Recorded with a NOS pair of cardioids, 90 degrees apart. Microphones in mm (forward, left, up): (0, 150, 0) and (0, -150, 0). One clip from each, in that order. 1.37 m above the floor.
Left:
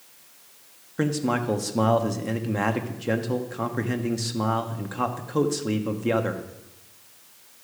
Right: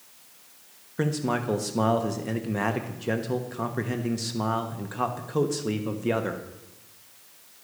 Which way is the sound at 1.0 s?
5° left.